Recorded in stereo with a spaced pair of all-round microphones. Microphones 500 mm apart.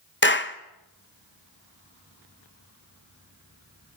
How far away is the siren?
No siren in this recording.